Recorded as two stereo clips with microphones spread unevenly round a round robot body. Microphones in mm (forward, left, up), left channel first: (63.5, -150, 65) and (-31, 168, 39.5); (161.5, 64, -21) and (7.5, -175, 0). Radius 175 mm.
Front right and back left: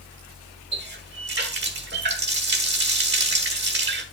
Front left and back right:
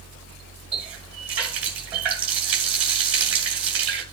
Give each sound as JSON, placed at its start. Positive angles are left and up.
{"t": 0.7, "sound": "a running tap", "azimuth_deg": 160, "distance_m": 1.2}